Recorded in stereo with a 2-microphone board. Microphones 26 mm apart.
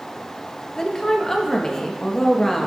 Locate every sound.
0.8 s a woman speaking: 15° left (ahead or behind), 1.1 m